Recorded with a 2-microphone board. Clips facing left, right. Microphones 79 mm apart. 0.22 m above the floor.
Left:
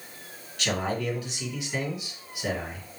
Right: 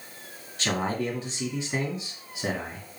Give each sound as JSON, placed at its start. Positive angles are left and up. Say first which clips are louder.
{"t": 0.6, "sound": "a man speaking", "louder": "right 1 dB", "side_deg": -30, "distance_m": 2.0}